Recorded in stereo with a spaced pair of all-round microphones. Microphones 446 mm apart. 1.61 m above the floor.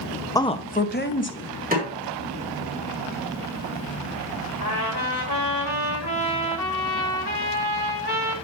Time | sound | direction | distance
0.3 | a woman speaking | 10° left (ahead or behind) | 0.6 m
1.7 | a snare drum | 20° right (ahead or behind) | 3.5 m
4.6 | a trumpet | 60° left (ahead or behind) | 2.5 m